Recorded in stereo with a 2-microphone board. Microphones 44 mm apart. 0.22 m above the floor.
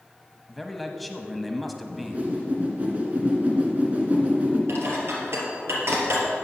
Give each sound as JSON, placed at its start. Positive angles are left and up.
{"t": 0.5, "sound": "a man speaking", "side_deg": 0, "distance_m": 1.0}
{"t": 1.9, "sound": "a whoosh", "side_deg": -30, "distance_m": 2.0}
{"t": 4.7, "sound": "dishes clattering", "side_deg": -60, "distance_m": 3.0}